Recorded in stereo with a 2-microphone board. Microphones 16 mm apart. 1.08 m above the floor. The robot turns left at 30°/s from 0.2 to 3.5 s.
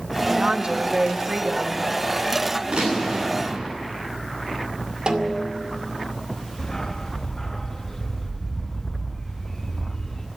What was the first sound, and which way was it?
A woman speaking, 100° right.